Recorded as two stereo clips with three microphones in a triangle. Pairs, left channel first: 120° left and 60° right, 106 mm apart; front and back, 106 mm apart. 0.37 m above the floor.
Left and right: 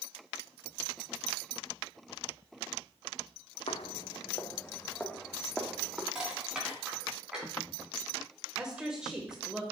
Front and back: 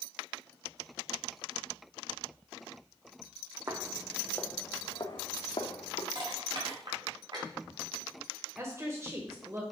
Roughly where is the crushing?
Behind right.